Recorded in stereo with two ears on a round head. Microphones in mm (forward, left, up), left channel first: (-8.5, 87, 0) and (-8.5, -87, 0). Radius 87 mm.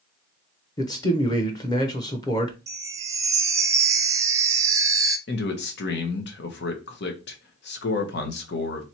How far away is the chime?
About 0.6 m.